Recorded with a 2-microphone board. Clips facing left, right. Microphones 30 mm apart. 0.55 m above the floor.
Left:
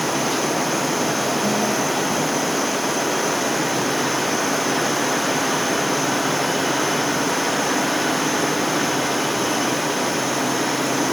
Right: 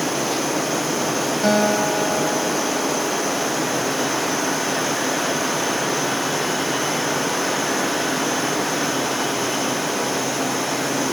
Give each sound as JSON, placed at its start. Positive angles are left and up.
{"t": 1.4, "sound": "a guitar", "side_deg": -50}